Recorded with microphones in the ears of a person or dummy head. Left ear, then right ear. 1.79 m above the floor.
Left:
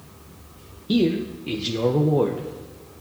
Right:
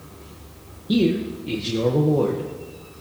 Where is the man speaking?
20° left (ahead or behind), 0.9 m.